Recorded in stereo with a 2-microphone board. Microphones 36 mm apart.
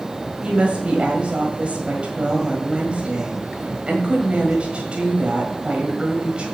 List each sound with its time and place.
0.4 s a woman speaking: 35° right (ahead or behind), 1.5 m